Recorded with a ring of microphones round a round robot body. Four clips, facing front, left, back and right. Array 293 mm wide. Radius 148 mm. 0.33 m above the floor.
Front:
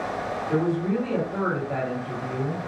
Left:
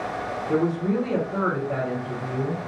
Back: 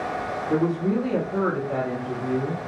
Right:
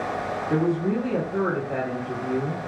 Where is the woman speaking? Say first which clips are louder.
Even, back 2 dB; 75° left, 1.9 m.